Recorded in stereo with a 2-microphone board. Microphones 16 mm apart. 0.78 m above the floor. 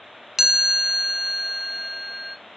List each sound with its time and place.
0.4 s a chime: 25° right (ahead or behind), 0.6 m